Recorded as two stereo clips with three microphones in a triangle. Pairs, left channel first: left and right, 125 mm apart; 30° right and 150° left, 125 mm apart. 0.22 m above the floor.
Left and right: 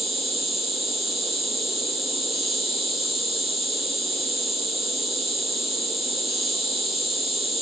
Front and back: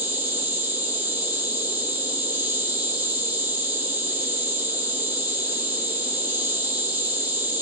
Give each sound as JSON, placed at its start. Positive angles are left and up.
{"t": 0.0, "sound": "an insect", "azimuth_deg": 180, "distance_m": 1.7}